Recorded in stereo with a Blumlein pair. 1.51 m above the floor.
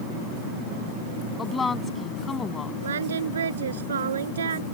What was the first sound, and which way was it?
A woman speaking, 15° left.